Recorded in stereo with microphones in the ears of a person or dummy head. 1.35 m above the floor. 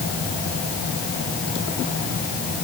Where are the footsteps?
No footsteps in this recording.